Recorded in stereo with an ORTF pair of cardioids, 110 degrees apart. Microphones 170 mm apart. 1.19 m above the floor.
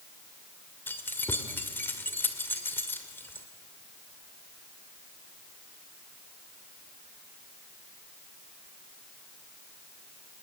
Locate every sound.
0.9 s keys jangling: 10° left, 2.5 m